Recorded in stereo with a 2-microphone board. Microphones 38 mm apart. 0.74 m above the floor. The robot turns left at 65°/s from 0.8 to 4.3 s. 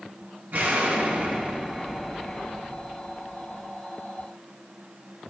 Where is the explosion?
100° right, 1.5 m; by 3.7 s 70° left, 1.5 m.